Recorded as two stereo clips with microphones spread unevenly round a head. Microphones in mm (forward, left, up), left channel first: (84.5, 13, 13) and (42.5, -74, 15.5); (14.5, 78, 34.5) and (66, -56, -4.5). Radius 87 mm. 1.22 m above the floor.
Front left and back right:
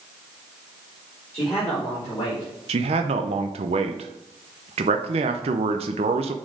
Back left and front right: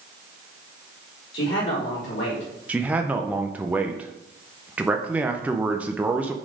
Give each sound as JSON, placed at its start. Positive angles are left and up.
{"t": 1.3, "sound": "a man speaking", "azimuth_deg": 140, "distance_m": 3.5}
{"t": 2.7, "sound": "a man speaking", "azimuth_deg": -145, "distance_m": 0.5}